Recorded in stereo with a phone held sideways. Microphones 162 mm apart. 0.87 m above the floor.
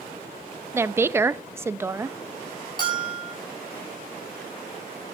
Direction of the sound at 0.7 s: 15° right (ahead or behind).